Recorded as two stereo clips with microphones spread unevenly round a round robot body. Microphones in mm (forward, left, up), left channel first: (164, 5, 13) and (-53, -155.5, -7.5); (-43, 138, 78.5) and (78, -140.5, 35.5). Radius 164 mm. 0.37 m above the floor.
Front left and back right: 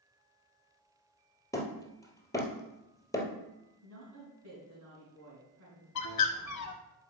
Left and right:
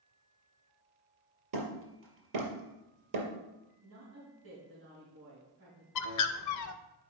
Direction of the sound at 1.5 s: 40° right.